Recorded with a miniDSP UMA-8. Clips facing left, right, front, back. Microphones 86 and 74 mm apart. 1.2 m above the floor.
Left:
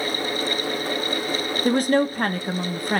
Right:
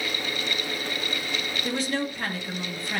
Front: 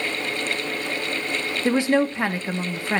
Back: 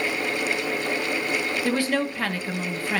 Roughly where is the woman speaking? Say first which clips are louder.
Left 10 dB, front 7 dB; ahead left.